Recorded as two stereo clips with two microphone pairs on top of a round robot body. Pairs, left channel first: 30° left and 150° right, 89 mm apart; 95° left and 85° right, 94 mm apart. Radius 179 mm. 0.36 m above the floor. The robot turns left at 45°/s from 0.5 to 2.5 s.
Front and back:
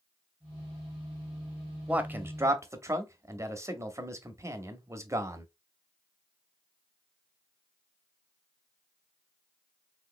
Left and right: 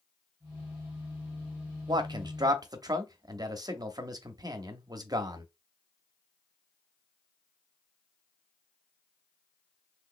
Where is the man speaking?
80° right, 1.1 m; by 5.5 s 110° right, 1.1 m.